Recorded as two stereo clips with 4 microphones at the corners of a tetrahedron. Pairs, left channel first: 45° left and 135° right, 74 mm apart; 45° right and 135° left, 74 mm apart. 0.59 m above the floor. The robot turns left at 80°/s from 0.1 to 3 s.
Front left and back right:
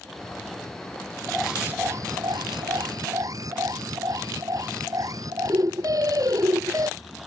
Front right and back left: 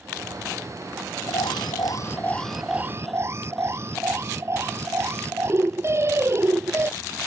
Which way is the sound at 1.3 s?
35° right.